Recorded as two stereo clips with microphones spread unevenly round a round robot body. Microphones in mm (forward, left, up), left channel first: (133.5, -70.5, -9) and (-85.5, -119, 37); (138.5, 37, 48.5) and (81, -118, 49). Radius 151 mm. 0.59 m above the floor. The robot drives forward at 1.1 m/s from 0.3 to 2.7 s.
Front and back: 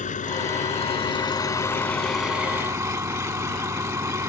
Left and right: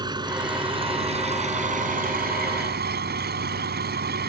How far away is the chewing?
No chewing in this recording.